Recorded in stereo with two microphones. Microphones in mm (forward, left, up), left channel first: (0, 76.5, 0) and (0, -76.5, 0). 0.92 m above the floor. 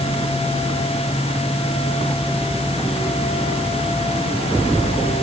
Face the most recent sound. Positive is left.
No sound to turn to.